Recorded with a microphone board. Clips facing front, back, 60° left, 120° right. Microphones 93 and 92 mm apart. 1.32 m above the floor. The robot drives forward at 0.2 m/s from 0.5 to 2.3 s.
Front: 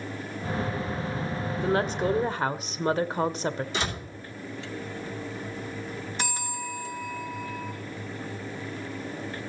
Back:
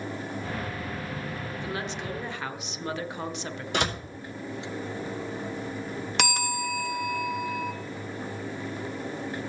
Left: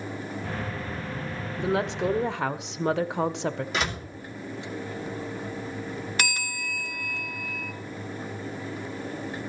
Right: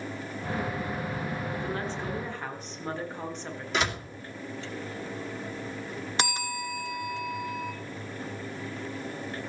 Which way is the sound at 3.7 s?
150° left.